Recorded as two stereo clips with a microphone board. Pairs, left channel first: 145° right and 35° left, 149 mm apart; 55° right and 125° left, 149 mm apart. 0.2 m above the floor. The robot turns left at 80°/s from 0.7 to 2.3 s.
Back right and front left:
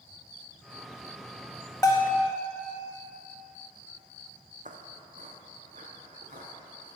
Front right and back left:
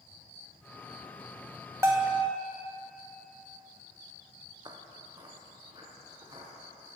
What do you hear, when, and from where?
1.8 s a bell: 175° left, 0.8 m; by 2.2 s 145° left, 0.8 m
4.7 s footsteps: 65° left, 0.8 m